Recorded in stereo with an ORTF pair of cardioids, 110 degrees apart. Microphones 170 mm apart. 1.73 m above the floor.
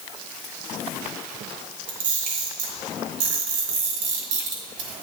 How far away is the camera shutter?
About 3 m.